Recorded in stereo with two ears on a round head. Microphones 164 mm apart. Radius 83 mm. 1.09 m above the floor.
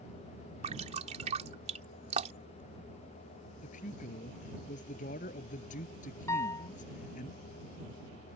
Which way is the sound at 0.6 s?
40° right (ahead or behind).